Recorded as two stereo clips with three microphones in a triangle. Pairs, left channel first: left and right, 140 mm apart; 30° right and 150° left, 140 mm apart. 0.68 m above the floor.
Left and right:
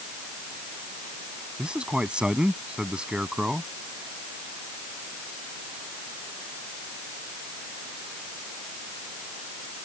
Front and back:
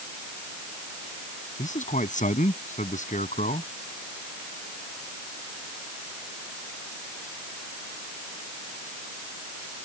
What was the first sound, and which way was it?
A man speaking, 5° right.